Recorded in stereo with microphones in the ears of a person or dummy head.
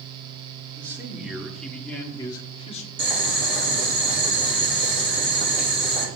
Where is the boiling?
65° right (ahead or behind), 2.5 m.